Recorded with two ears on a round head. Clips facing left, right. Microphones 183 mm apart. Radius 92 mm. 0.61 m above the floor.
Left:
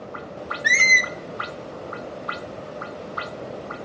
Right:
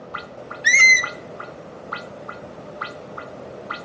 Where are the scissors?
No scissors in this recording.